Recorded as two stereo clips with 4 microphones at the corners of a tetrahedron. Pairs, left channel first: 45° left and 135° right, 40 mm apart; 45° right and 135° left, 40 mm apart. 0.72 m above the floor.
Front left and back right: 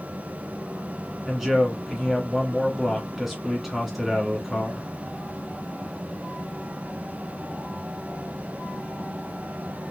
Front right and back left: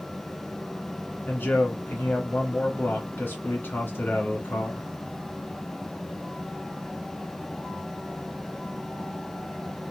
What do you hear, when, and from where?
1.2 s a man speaking: 45° right, 1.7 m